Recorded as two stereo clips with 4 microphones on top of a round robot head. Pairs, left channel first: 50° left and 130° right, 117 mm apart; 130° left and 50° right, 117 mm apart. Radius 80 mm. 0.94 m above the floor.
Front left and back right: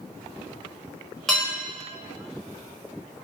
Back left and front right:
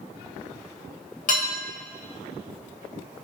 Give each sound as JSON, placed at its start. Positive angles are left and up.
{"t": 1.3, "sound": "dishes clattering", "azimuth_deg": 140, "distance_m": 1.0}